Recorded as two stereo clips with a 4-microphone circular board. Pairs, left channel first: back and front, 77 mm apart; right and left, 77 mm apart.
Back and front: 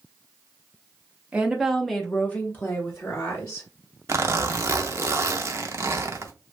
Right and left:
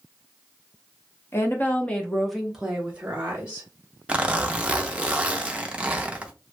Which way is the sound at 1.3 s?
65° right.